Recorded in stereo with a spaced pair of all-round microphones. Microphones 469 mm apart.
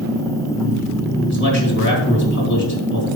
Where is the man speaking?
35° left (ahead or behind), 2.5 m.